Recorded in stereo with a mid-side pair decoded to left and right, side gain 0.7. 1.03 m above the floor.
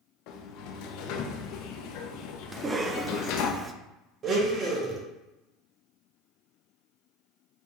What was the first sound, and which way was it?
A sliding door, 65° left.